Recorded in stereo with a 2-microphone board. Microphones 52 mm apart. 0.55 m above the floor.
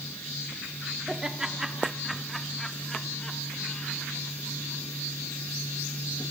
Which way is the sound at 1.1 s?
15° right (ahead or behind).